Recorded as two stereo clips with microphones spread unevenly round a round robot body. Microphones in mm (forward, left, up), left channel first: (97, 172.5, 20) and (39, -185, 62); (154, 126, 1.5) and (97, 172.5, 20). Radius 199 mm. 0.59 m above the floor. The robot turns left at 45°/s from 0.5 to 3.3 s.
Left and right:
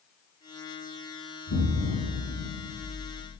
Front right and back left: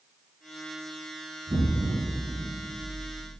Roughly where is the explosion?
Behind left.